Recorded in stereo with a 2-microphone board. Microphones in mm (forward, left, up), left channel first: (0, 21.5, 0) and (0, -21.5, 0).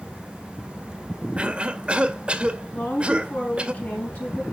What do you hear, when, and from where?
1.4 s a cough: 25° right (ahead or behind), 1.9 m
2.7 s a woman speaking: 40° left (ahead or behind), 4.5 m